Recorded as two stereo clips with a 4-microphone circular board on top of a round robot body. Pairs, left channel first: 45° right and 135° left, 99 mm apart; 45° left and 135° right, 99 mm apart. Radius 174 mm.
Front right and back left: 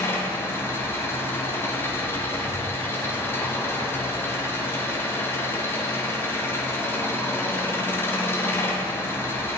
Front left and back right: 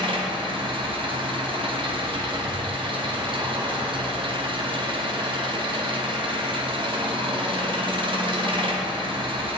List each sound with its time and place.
0.0 s an engine running: 110° right, 1.2 m